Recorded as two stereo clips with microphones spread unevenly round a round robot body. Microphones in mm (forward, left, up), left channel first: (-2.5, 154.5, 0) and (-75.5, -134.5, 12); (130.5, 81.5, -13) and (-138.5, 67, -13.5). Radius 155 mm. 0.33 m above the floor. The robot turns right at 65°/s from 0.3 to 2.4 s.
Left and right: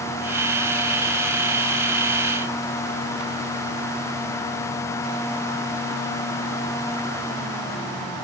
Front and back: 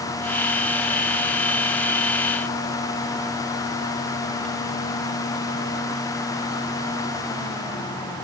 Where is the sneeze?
No sneeze in this recording.